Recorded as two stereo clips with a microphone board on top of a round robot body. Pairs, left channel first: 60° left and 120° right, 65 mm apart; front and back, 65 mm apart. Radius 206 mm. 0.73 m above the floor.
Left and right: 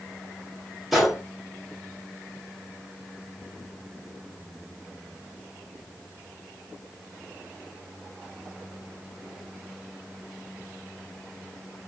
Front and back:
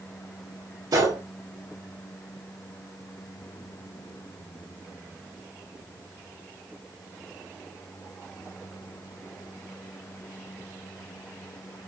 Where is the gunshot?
150° left, 0.6 m.